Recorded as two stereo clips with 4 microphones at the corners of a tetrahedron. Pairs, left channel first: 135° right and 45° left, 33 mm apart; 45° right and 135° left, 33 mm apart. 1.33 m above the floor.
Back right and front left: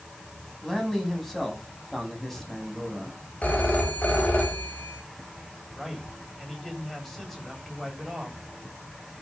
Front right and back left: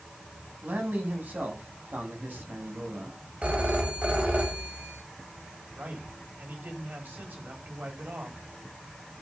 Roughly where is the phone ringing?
Behind.